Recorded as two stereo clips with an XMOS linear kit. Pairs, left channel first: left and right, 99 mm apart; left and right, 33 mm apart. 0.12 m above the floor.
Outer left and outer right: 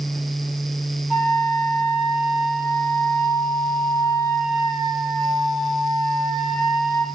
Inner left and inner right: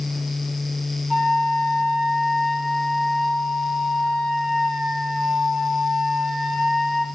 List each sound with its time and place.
1.1 s a flute: 5° left (ahead or behind), 1.1 m